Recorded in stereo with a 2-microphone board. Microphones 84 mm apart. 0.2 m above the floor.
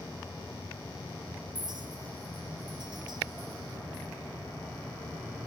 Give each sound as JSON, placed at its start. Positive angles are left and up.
{"t": 1.6, "sound": "a clink", "side_deg": -60, "distance_m": 2.0}